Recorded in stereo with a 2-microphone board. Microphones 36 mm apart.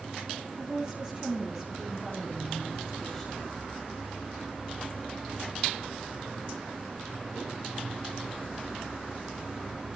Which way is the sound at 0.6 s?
25° right (ahead or behind).